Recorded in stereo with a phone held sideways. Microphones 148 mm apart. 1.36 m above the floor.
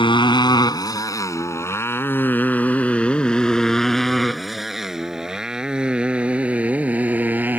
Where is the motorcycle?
35° left (ahead or behind); by 7.6 s 10° right (ahead or behind).